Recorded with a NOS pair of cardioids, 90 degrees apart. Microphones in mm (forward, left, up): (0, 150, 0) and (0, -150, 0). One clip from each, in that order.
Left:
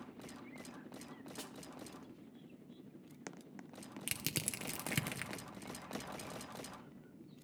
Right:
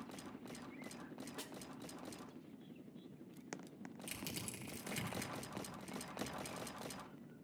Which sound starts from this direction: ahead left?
Crushing, at 4.1 s.